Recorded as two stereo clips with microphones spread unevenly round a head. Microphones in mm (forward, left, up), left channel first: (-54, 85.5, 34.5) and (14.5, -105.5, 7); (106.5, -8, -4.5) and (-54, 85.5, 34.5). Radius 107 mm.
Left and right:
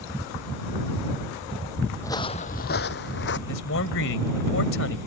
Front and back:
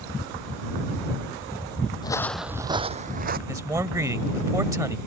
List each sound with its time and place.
2.0 s footsteps: 40° left; by 3.4 s 130° left
3.5 s a man speaking: 75° left